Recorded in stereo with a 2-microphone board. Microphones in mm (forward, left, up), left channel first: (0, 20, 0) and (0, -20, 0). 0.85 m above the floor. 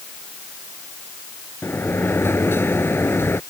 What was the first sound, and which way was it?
A sliding door, 70° left (ahead or behind).